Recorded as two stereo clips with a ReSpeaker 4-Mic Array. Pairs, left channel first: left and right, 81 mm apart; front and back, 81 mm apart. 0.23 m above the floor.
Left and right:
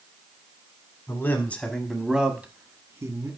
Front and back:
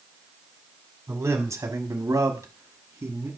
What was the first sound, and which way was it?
A man speaking, 135° left.